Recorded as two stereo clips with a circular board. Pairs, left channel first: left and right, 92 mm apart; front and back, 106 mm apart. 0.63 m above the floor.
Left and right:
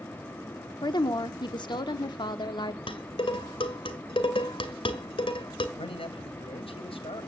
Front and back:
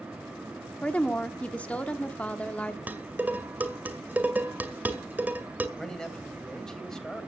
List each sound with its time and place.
0.8 s a woman speaking: 75° left, 1.2 m
2.9 s dishes clattering: 105° left, 2.0 m
5.8 s a man speaking: 85° left, 2.5 m